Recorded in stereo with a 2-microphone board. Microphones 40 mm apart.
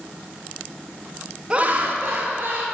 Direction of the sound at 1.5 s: 25° right (ahead or behind).